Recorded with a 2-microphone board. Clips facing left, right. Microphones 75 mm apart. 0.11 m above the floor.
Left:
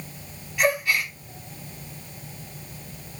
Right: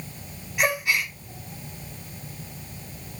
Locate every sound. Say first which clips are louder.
0.6 s a gasp: left 2 dB; 15° right (ahead or behind), 6 m